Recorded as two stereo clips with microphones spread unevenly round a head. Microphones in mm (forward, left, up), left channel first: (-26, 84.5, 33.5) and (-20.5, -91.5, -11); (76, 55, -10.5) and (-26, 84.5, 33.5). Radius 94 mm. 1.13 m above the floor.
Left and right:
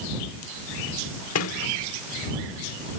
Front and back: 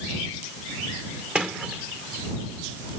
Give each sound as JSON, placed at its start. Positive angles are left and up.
{"t": 1.4, "sound": "a sliding door", "azimuth_deg": 80}